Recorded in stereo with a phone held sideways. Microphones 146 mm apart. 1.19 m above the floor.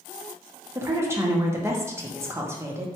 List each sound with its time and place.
0.8 s a woman speaking: 20° right (ahead or behind), 0.7 m